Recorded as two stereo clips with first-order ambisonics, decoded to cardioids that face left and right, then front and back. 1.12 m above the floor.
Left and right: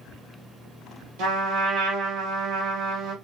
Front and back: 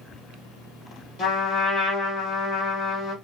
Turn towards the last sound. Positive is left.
turn(degrees=-60)